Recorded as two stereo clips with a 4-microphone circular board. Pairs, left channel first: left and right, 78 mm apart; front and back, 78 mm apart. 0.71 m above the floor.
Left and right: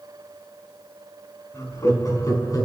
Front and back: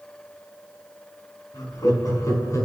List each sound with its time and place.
1.5 s laughter: 40° left, 5.5 m; by 2.6 s 50° left, 5 m